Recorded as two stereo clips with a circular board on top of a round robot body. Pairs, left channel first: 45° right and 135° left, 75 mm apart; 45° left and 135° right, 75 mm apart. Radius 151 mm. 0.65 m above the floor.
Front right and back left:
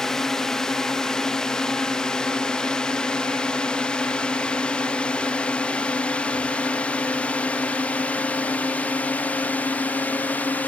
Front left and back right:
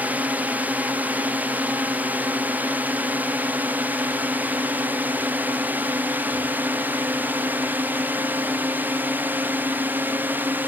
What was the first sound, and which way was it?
A drone, 120° right.